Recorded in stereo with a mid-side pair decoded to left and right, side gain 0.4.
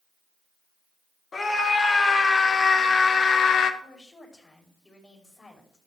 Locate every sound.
1.3 s a scream: 35° left, 3 m; by 3.7 s 70° left, 1.4 m
3.8 s a woman speaking: 25° left, 5 m